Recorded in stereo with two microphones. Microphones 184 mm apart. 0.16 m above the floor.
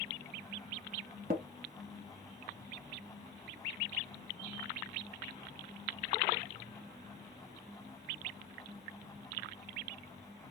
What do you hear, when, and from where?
1.3 s tapping: 50° right (ahead or behind), 0.9 m